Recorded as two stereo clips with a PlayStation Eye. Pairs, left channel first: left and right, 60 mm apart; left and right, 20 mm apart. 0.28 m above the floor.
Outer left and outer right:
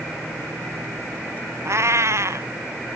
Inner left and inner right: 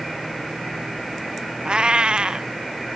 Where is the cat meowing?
55° right (ahead or behind).